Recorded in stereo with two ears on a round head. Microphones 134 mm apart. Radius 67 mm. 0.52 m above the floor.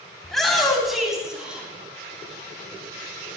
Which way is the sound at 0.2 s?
5° left (ahead or behind).